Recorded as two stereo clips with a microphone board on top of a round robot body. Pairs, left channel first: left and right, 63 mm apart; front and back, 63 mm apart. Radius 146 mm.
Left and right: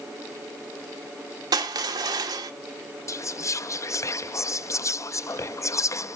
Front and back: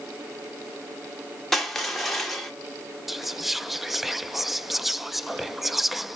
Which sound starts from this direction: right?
Crushing, at 1.5 s.